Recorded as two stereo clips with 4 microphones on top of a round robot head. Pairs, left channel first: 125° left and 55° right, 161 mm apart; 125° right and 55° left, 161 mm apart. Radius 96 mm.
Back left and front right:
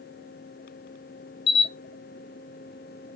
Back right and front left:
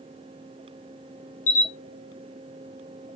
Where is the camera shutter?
170° right, 0.5 m.